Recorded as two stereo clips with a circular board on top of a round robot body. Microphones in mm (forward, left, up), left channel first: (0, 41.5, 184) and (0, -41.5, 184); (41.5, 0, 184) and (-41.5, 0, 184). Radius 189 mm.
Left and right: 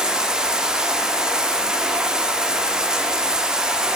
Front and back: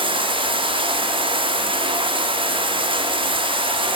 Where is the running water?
170° right, 1.4 m.